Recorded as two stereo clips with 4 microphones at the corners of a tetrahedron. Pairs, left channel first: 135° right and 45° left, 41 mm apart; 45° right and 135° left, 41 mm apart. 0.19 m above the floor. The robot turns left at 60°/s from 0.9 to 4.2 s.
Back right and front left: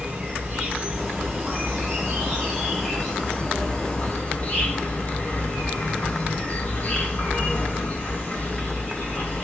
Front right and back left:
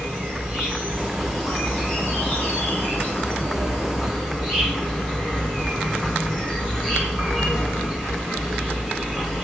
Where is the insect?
80° left, 1.7 m; by 9.4 s 115° right, 1.7 m.